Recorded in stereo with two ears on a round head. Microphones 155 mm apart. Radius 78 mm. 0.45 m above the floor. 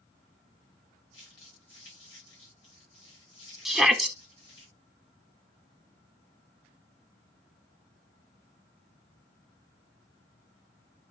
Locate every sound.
1.1 s crumpling: 85° left, 7 m
3.6 s a shout: centre (ahead or behind), 1.0 m